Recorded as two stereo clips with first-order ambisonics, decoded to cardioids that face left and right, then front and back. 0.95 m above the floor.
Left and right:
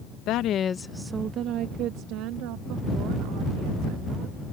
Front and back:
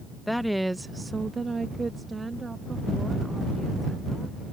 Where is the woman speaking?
90° left; by 4.4 s 100° right.